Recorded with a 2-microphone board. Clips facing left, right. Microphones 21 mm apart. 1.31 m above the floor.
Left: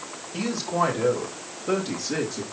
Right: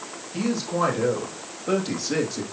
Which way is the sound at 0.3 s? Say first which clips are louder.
Even; 5° left (ahead or behind).